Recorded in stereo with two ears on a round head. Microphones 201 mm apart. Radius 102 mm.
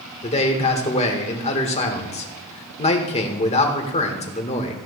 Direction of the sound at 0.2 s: 30° left (ahead or behind).